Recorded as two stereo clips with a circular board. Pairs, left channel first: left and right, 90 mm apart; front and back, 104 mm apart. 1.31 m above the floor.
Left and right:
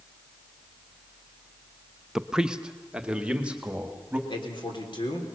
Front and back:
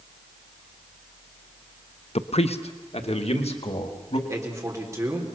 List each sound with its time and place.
2.1 s a man speaking: 5° right, 0.7 m; by 4.2 s 15° right, 2.5 m
4.3 s a man speaking: 120° left, 4 m